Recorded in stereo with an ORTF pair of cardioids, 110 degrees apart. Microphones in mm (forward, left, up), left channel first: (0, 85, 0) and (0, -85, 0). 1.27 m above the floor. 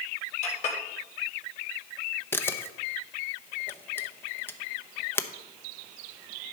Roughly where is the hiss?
I don't hear a hiss.